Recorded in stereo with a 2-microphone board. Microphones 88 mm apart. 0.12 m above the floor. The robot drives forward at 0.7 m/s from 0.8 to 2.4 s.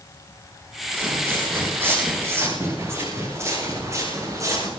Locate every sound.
0.9 s footsteps: 25° right (ahead or behind), 4.5 m; by 4.7 s 35° right (ahead or behind), 6.5 m